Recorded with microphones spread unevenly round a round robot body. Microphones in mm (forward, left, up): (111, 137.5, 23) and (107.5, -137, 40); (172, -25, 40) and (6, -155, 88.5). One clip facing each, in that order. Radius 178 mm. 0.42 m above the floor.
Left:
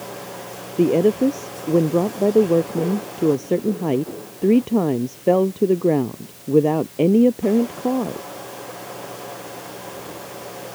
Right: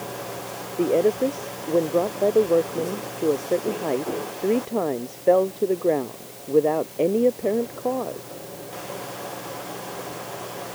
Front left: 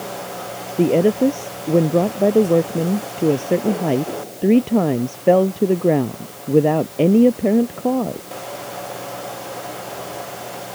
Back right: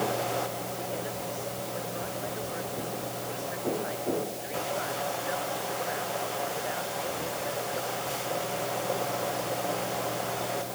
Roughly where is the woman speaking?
Ahead left.